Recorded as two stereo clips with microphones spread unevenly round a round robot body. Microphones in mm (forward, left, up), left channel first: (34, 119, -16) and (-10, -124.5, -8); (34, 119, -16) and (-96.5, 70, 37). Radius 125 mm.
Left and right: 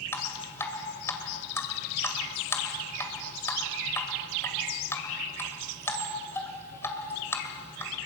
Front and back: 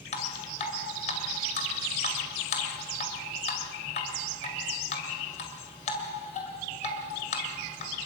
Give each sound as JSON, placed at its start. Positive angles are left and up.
{"t": 0.1, "sound": "dripping", "azimuth_deg": 0, "distance_m": 2.0}